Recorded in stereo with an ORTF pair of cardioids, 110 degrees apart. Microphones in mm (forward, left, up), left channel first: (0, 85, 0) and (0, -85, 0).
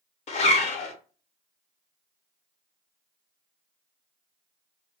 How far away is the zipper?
About 0.7 m.